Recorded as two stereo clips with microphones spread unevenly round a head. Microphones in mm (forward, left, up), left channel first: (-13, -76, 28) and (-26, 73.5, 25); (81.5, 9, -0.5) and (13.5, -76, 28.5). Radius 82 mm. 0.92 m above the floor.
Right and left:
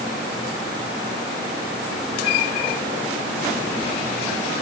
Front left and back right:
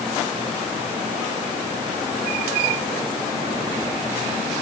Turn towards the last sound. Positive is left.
No sound to turn to.